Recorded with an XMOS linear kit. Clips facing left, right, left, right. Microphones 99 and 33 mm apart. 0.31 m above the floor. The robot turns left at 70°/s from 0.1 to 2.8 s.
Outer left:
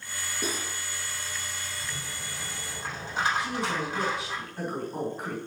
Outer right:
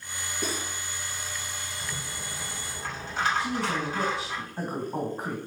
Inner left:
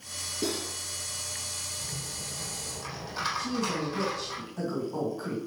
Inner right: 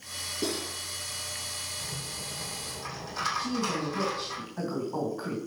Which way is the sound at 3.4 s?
30° right (ahead or behind).